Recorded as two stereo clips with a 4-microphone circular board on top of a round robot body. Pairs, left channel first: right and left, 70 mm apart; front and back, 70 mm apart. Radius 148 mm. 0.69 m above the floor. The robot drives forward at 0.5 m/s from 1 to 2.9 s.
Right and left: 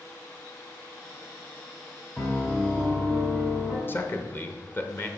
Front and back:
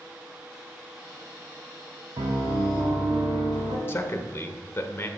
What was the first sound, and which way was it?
A piano, 170° right.